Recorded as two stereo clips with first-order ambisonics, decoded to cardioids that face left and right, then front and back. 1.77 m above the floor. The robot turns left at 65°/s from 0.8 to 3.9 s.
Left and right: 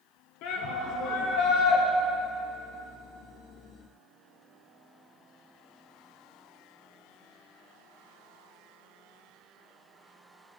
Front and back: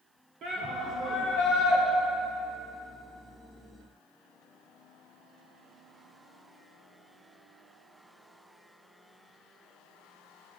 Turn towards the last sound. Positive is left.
turn(degrees=-80)